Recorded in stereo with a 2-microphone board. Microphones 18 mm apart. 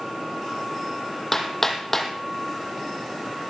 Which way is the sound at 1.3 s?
20° left (ahead or behind).